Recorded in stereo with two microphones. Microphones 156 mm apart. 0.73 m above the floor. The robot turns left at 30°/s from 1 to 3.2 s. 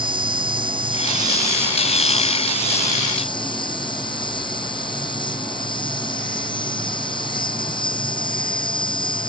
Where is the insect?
145° right; by 9.3 s 150° left.